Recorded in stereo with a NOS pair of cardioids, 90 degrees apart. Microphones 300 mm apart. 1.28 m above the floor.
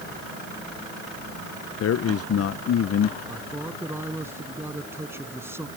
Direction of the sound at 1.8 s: 50° left.